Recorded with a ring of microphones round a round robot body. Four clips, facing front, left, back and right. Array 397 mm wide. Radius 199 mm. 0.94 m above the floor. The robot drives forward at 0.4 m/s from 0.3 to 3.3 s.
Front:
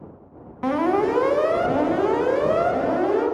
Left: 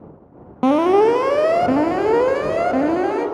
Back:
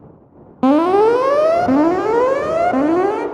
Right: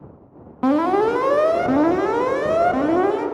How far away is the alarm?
About 0.8 m.